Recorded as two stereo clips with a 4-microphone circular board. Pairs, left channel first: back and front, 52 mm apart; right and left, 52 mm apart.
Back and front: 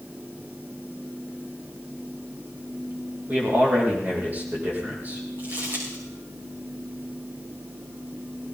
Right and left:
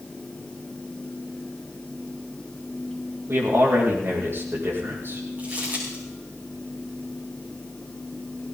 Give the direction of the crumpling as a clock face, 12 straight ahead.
11 o'clock.